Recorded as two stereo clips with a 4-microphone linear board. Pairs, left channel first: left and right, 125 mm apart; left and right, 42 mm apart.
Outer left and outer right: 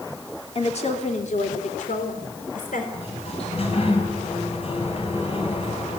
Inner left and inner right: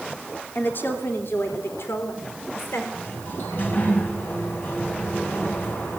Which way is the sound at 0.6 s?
50° left (ahead or behind).